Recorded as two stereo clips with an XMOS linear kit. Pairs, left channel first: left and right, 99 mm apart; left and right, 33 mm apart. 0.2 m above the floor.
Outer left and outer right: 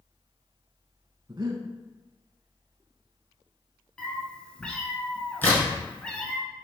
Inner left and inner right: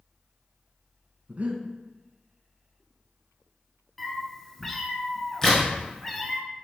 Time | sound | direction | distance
1.3 | breathing | 50° right (ahead or behind) | 0.6 m
4.0 | a cat meowing | 10° left (ahead or behind) | 0.7 m
5.4 | a crack | 20° left (ahead or behind) | 1.7 m